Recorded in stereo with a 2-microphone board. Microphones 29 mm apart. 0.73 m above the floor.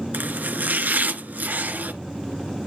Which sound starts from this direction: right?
Chopping, at 0.1 s.